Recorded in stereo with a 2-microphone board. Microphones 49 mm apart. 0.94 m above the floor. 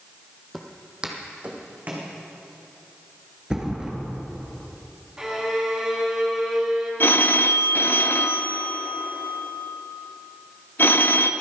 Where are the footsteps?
Centre (ahead or behind), 1.1 m; by 2.1 s 35° right (ahead or behind), 2.5 m.